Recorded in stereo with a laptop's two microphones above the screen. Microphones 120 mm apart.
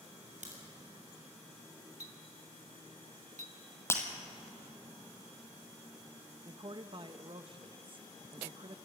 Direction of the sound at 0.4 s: 80° right.